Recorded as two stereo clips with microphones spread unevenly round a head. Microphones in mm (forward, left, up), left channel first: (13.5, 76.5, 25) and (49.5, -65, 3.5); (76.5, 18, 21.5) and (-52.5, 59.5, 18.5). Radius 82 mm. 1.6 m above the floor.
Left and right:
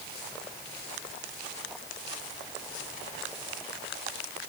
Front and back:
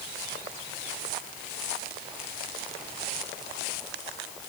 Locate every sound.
Only background noise.